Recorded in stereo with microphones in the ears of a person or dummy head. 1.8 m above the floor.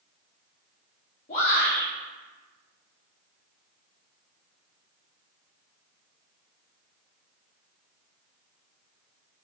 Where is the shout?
40° left (ahead or behind), 4 m.